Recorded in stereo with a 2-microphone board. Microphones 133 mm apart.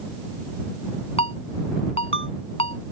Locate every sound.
1.2 s a ringtone: 50° left (ahead or behind)